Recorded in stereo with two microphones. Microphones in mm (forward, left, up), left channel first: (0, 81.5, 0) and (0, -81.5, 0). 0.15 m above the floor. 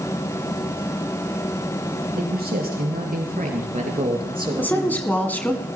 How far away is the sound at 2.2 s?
About 3.5 m.